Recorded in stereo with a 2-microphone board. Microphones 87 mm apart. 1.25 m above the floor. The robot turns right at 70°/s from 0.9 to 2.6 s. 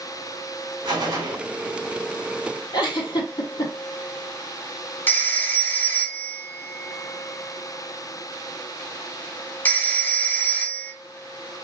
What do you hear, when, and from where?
0.8 s a gunshot: 65° right, 2 m; by 1.4 s 30° right, 2 m
2.7 s a giggle: 70° left (ahead or behind), 2 m
5.1 s a phone ringing: 20° left (ahead or behind), 0.7 m